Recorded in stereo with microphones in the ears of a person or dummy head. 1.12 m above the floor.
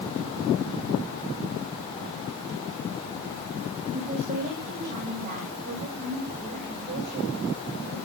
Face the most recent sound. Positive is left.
turn(degrees=-50)  # may be behind; listen again after turning